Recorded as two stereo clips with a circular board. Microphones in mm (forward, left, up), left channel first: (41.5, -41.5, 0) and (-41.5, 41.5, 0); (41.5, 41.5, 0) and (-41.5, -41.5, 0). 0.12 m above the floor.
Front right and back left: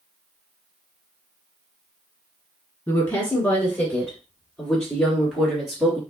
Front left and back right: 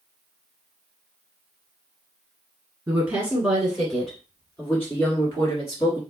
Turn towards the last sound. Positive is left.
turn(degrees=50)